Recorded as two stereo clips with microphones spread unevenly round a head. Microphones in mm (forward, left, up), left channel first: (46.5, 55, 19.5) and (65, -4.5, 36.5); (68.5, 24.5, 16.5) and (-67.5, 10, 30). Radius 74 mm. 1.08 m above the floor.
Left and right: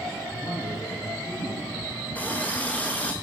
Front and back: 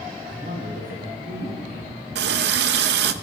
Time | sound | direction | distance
0.2 | a man speaking | 165° left | 9 m
2.1 | a running tap | 175° right | 0.7 m